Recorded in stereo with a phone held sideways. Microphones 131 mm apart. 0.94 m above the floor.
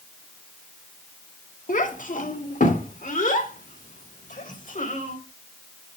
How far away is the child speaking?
About 1.4 m.